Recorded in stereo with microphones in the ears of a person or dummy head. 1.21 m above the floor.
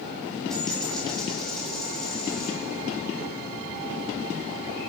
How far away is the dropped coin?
About 4.5 m.